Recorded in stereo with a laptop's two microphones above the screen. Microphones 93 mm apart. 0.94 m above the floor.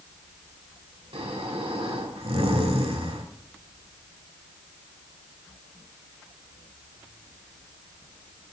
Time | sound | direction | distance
1.1 | snoring | 75° right (ahead or behind) | 1.9 m